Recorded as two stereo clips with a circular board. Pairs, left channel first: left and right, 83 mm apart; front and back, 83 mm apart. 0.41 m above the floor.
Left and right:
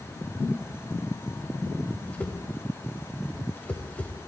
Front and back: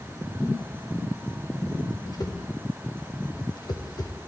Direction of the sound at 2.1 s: 20° left.